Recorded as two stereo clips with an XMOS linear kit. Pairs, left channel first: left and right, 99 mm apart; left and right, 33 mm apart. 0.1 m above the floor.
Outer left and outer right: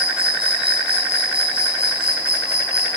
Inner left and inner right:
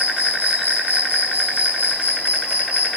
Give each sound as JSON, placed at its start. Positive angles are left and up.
{"t": 0.0, "sound": "an insect", "side_deg": -65, "distance_m": 6.0}